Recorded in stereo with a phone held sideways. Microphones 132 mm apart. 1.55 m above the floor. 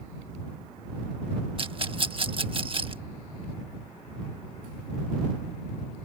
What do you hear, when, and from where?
1.6 s a rattle: 40° right (ahead or behind)